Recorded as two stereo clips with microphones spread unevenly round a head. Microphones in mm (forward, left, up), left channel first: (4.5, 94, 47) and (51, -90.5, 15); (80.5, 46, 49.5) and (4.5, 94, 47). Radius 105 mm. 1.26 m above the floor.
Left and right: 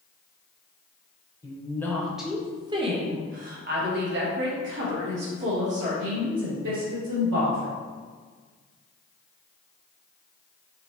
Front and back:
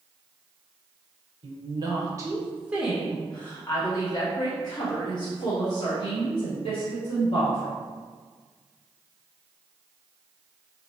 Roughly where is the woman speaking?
Behind.